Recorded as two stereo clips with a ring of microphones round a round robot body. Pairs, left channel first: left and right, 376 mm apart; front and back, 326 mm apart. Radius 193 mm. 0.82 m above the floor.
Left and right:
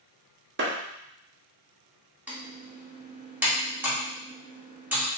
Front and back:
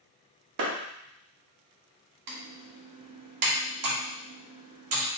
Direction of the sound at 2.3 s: 175° right.